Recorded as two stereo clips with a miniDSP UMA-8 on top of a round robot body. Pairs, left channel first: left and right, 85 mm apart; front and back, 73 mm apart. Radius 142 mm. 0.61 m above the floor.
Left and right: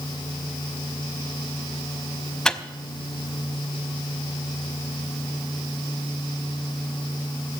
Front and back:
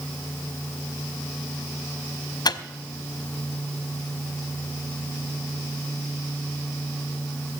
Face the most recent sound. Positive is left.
turn(degrees=5)